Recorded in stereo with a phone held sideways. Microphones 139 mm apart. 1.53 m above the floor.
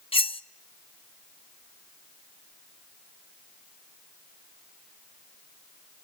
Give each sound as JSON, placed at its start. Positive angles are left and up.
{"t": 0.1, "sound": "cutlery clinking", "side_deg": 40, "distance_m": 0.7}